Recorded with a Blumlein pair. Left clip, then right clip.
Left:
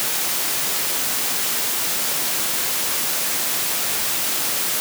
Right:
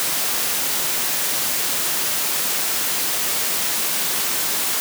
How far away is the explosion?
I don't hear an explosion.